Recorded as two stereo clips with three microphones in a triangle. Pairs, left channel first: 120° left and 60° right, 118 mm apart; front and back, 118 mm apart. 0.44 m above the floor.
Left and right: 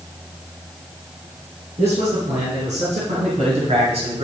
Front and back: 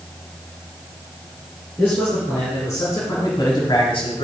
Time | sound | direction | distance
1.8 | a man speaking | 70° right | 4.5 m